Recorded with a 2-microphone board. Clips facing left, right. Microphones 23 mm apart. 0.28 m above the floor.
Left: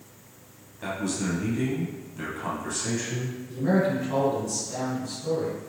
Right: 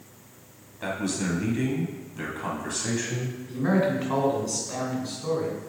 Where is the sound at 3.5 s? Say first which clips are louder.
Even; 55° right (ahead or behind), 2.5 m.